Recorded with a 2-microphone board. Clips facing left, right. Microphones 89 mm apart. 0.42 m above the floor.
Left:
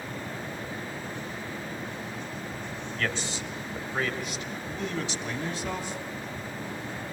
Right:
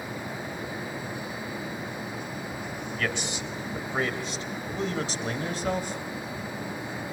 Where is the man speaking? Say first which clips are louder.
Even; 15° right (ahead or behind), 2.5 m; by 6.0 s 55° right (ahead or behind), 3 m.